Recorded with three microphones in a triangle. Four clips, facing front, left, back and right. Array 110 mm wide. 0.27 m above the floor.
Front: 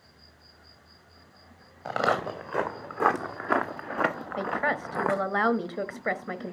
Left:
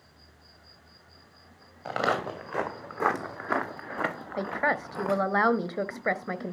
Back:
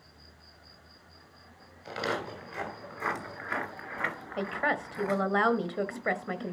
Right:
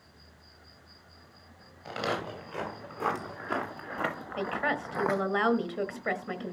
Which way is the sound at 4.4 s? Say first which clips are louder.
Left 3 dB, front 1 dB; 80° left.